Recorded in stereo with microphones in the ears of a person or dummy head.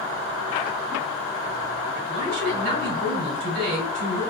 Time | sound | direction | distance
2.1 | a man speaking | 60° right (ahead or behind) | 3 m